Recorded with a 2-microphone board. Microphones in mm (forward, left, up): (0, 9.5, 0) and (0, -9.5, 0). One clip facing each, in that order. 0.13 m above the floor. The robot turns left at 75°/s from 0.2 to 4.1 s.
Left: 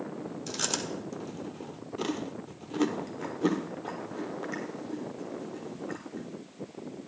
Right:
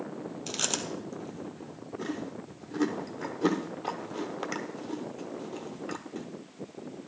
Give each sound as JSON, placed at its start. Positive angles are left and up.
{"t": 0.5, "sound": "chewing", "side_deg": -30, "distance_m": 1.1}